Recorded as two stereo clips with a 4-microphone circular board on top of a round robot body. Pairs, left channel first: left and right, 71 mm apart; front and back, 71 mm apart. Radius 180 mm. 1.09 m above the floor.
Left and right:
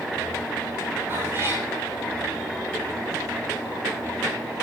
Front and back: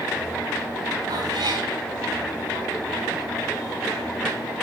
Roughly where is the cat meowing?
Behind right.